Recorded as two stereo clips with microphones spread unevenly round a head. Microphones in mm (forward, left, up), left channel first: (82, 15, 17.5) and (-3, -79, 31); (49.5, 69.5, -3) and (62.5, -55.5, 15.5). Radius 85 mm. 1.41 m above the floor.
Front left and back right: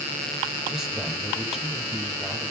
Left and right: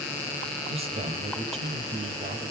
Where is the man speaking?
45° right, 7.5 m.